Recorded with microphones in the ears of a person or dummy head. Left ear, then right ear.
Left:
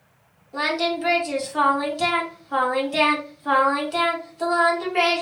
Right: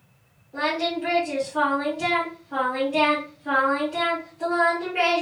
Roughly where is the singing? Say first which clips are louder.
Left 2 dB; left.